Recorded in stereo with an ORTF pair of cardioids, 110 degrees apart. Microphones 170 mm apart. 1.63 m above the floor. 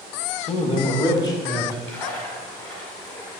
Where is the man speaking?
40° left, 0.8 m; by 1.8 s 15° left, 1.6 m.